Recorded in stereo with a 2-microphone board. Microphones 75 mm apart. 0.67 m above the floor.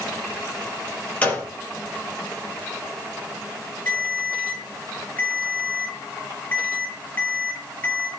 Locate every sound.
1.2 s a gunshot: 20° left (ahead or behind), 5 m
3.9 s a ringtone: 25° left (ahead or behind), 5 m